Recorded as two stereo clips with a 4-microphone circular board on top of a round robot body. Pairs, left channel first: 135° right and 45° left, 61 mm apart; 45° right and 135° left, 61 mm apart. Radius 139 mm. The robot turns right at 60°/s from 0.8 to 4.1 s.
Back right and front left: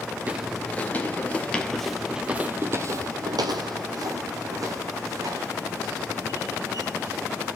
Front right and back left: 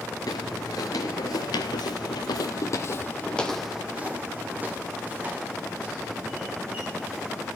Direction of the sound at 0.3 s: 20° right.